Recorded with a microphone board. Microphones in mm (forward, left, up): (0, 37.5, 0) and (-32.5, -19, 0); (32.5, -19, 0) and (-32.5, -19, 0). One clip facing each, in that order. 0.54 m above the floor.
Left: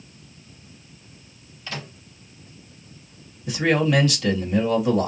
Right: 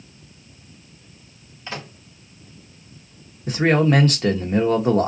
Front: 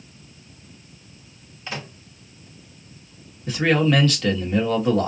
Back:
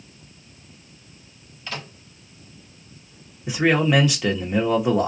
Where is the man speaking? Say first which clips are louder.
Right 3 dB, even; 105° right, 1.2 m.